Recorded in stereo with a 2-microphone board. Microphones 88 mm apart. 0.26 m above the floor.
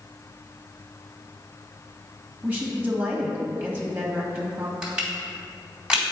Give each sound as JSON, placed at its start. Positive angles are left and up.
{"t": 2.4, "sound": "a woman speaking", "side_deg": -25, "distance_m": 1.5}
{"t": 4.8, "sound": "crushing", "side_deg": -10, "distance_m": 2.0}